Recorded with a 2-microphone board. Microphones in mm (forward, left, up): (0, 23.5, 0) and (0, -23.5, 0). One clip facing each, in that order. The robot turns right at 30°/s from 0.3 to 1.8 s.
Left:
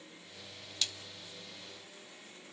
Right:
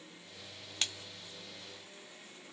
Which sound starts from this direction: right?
A splash, at 0.8 s.